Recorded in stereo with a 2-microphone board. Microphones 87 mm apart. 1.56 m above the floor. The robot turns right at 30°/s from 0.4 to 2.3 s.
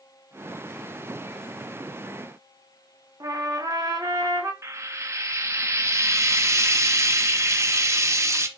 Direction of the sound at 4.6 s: 35° right (ahead or behind).